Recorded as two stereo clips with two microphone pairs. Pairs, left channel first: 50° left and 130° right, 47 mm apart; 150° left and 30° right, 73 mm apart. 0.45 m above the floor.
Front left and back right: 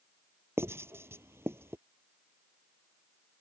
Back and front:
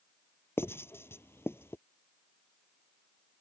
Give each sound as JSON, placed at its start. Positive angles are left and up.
{"t": 0.6, "sound": "writing", "azimuth_deg": -155}